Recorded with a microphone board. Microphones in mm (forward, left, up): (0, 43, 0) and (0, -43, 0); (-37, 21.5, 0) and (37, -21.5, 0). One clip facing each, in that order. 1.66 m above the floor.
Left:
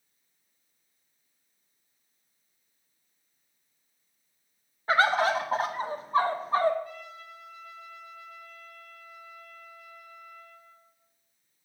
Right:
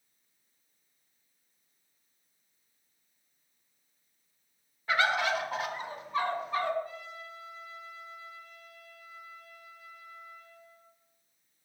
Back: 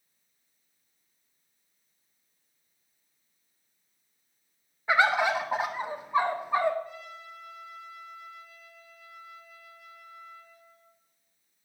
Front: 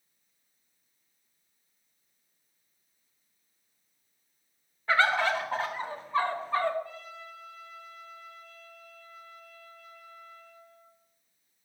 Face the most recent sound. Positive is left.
turn(degrees=-140)